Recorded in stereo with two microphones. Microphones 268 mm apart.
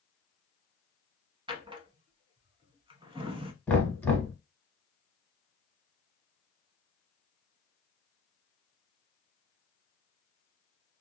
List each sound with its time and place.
1.5 s a drawer: 20° right (ahead or behind), 0.6 m
3.7 s knocking: 10° left (ahead or behind), 1.3 m